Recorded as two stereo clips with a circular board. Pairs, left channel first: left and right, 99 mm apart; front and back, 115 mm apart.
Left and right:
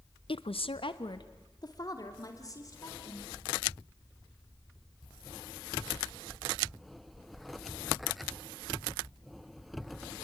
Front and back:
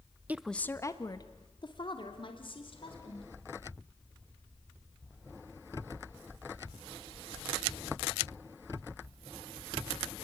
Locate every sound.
0.3 s a woman speaking: 105° left, 0.8 m; by 3.3 s 35° left, 5 m